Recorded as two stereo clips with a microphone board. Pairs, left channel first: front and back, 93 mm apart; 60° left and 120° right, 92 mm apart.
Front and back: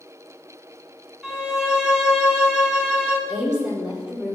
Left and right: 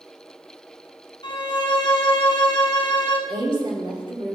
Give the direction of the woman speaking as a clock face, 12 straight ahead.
3 o'clock.